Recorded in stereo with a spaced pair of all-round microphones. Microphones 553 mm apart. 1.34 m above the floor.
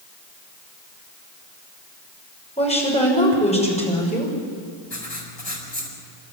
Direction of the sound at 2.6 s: 10° left (ahead or behind).